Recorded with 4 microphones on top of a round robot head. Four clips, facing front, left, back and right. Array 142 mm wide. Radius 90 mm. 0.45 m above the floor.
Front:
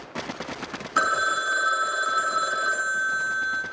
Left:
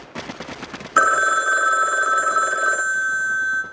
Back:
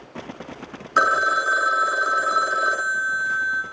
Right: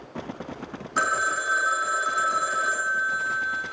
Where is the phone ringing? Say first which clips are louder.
Left 8 dB, back 5 dB; 125° left, 0.5 m.